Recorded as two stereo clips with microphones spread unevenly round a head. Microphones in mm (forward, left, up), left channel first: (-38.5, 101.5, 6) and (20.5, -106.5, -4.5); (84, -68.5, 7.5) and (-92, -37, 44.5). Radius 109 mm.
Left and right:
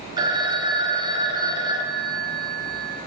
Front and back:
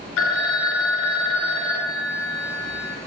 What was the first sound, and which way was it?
A phone ringing, straight ahead.